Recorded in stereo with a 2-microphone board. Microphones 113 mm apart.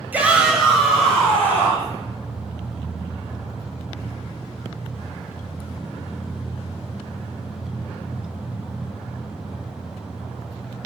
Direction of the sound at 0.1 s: 15° right (ahead or behind).